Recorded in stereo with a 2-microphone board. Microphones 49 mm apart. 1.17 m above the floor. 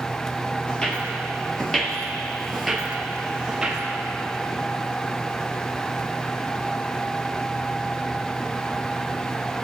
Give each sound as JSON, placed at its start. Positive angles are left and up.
{"t": 0.7, "sound": "footsteps", "side_deg": 20, "distance_m": 1.4}